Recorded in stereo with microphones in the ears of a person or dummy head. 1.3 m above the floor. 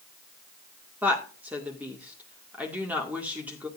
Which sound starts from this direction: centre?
A woman speaking, at 1.0 s.